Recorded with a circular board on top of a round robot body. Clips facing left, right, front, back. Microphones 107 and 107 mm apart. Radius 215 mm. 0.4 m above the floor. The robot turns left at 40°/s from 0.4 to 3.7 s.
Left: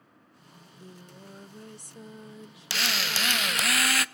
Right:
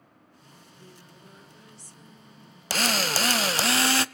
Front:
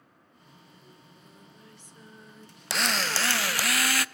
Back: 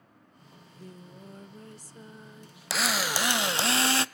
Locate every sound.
0.5 s singing: straight behind, 0.6 m; by 3.7 s 50° left, 0.6 m
2.7 s a drill: 95° right, 0.7 m; by 4.0 s 135° right, 0.7 m